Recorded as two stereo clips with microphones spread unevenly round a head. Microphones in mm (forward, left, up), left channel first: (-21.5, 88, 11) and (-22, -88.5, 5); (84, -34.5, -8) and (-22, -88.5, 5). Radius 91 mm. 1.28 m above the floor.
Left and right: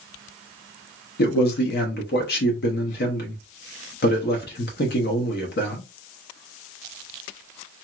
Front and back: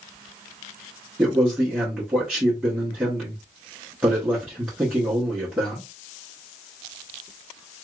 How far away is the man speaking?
About 0.8 m.